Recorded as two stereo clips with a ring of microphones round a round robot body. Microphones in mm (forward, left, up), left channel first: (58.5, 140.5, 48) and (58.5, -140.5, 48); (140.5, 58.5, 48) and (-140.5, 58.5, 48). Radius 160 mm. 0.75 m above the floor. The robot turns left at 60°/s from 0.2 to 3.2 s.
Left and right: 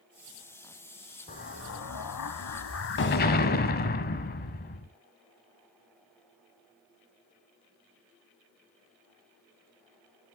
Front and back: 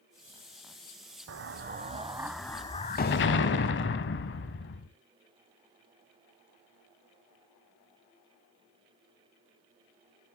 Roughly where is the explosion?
Behind left.